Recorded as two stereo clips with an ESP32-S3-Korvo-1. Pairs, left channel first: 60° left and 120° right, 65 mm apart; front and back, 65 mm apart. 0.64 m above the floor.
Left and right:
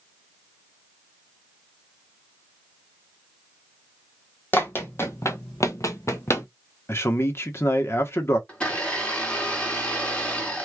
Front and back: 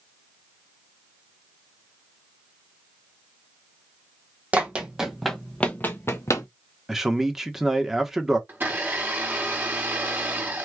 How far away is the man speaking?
About 1.0 m.